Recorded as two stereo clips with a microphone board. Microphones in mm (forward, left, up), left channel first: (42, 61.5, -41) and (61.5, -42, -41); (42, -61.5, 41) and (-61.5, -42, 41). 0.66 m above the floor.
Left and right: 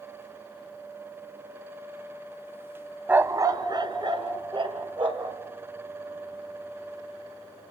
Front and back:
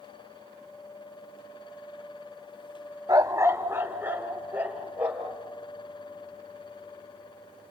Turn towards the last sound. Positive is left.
turn(degrees=-115)